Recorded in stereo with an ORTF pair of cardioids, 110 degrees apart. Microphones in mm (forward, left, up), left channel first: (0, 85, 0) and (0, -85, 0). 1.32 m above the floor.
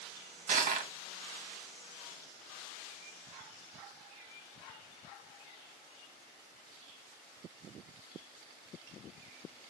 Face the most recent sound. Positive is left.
turn(degrees=-55)